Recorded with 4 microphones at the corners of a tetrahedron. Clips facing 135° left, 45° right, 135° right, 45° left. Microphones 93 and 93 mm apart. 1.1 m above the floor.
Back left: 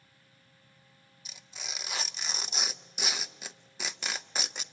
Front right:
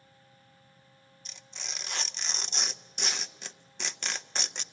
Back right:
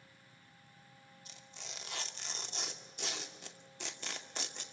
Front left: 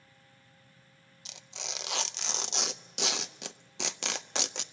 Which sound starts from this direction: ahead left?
Tearing paper, at 1.2 s.